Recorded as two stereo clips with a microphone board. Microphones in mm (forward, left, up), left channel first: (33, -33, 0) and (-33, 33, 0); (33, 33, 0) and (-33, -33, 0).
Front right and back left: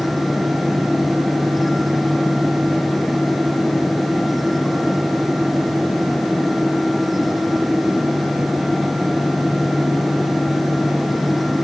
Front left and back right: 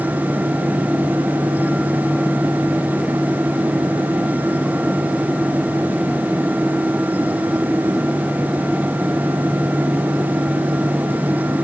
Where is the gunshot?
I don't hear a gunshot.